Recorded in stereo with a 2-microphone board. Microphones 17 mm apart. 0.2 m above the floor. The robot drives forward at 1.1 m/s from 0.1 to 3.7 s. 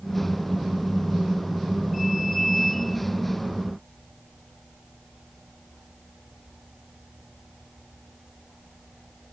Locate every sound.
Only background noise.